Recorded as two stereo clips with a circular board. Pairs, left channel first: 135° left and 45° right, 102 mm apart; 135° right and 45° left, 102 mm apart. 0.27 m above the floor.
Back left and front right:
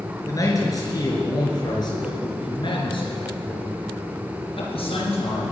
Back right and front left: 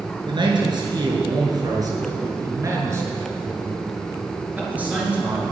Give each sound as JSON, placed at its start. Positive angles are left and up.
{"t": 0.3, "sound": "a man speaking", "azimuth_deg": 80, "distance_m": 5.0}